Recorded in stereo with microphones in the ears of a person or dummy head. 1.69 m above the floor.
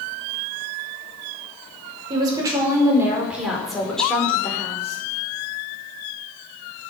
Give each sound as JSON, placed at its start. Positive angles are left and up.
{"t": 2.1, "sound": "a woman speaking", "side_deg": -25, "distance_m": 5.0}